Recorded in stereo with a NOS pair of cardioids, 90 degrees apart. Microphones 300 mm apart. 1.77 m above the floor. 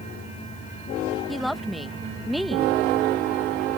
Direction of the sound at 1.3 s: Straight ahead.